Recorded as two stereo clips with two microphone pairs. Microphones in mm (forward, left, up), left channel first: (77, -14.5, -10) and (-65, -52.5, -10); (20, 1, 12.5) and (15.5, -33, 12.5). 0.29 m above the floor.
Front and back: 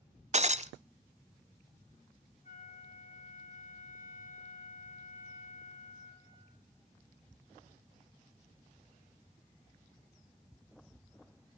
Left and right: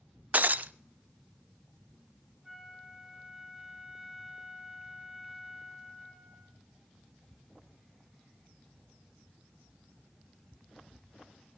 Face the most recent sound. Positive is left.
turn(degrees=-10)